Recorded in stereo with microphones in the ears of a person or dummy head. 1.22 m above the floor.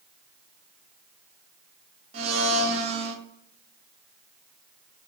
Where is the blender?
40° right (ahead or behind), 0.7 m.